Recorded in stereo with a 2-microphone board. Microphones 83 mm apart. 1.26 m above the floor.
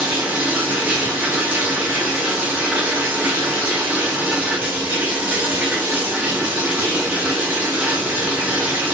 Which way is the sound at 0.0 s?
15° right (ahead or behind).